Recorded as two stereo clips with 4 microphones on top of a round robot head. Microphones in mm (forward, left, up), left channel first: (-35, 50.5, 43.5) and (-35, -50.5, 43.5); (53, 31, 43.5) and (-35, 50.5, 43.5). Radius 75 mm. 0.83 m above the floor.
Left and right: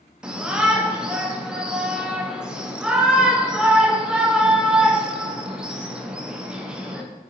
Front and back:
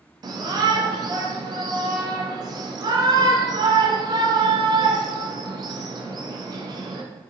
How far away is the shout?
About 0.7 m.